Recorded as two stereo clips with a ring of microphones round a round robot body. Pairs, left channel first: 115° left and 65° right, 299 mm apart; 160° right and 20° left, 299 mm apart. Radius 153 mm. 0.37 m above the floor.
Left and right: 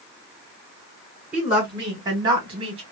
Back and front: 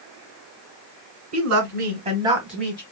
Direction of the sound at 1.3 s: 15° left.